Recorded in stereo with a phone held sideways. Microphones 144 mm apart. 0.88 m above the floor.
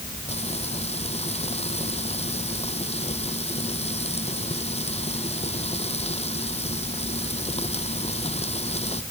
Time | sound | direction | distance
0.3 | frying | 45° left (ahead or behind) | ?